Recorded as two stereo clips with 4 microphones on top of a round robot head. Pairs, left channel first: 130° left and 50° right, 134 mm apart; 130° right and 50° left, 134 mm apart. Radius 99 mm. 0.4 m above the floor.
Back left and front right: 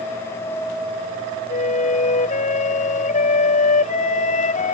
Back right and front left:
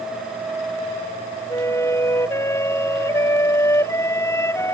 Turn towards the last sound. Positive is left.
turn(degrees=160)